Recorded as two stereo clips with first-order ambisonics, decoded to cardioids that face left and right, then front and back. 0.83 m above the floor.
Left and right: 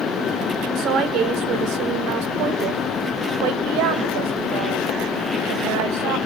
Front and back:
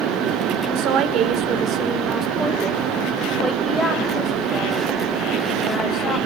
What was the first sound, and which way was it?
A woman speaking, 145° right.